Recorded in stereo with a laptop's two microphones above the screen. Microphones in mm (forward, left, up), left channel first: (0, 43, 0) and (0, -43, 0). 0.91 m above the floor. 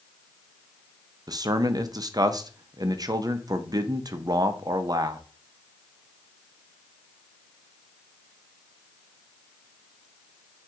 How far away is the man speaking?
About 0.5 m.